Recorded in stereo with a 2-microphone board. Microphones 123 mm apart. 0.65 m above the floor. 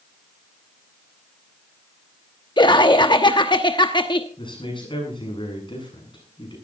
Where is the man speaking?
45° left (ahead or behind), 8 m.